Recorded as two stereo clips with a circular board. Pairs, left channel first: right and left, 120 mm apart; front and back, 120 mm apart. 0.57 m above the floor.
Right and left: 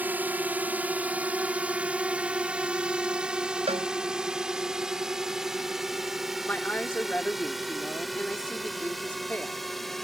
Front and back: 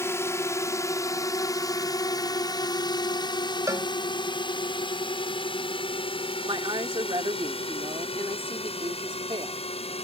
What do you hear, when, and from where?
0.0 s a drone: 35° left; by 10.1 s straight ahead
3.7 s a cowbell: 115° left
6.4 s a woman speaking: 160° right